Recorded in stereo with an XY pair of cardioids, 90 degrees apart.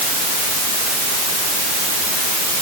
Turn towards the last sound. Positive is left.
No sound to turn to.